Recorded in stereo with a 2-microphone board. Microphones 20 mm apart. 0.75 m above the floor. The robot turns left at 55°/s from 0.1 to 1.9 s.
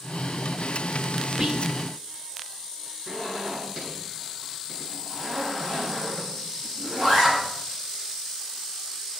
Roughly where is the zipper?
Right.